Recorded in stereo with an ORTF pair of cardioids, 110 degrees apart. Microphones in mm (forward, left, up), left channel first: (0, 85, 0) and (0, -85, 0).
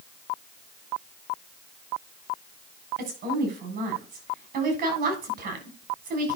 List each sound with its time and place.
3.0 s a woman speaking: 65° right, 7.5 m